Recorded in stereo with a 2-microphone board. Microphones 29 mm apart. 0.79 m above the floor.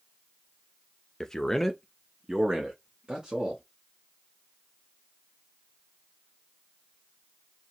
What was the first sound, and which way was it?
A man speaking, 20° left (ahead or behind).